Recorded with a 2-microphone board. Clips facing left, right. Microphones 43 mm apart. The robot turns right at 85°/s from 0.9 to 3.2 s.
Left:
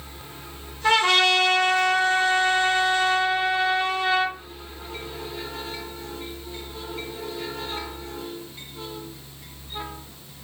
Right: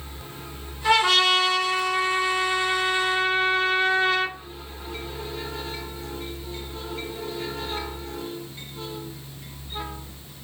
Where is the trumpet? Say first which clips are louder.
Even; 15° left, 1.3 m; by 4.3 s 145° right, 1.3 m.